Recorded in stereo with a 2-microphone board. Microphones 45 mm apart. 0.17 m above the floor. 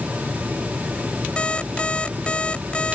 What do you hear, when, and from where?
1.4 s an alarm clock: 25° left (ahead or behind)